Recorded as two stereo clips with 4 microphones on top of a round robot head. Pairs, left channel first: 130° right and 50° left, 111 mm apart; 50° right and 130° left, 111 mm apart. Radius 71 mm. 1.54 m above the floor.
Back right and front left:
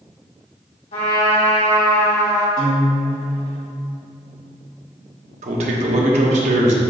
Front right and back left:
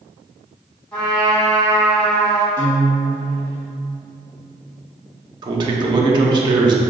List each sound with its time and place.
0.9 s a trumpet: 130° right, 1.9 m
2.6 s a guitar: 95° right, 1.9 m
5.4 s a man speaking: 80° left, 0.6 m